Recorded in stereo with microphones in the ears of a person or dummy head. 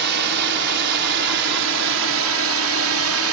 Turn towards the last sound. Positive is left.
turn(degrees=-75)  # may be behind; listen again after turning